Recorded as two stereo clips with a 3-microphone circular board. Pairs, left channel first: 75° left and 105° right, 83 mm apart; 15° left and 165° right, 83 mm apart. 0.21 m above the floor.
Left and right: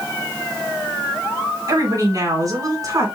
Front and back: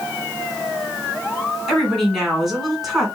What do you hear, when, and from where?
1.7 s a woman speaking: 75° right, 2.5 m